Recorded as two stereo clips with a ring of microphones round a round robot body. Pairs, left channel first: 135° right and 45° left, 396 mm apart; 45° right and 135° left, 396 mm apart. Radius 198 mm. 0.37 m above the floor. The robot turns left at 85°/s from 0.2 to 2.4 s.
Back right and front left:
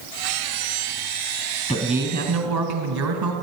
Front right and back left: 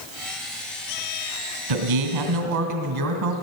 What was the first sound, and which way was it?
A man speaking, 150° left.